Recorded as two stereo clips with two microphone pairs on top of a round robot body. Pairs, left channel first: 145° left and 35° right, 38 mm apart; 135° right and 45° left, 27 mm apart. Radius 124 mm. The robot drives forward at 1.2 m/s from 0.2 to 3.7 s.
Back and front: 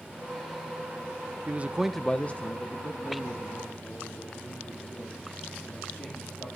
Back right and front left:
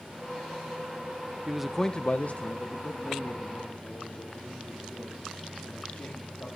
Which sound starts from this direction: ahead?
A man speaking, at 1.5 s.